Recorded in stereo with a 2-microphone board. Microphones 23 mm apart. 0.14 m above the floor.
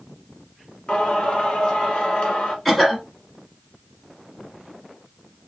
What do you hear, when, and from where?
0.9 s singing: 35° left (ahead or behind), 1.5 m
2.6 s a cough: 5° left (ahead or behind), 1.7 m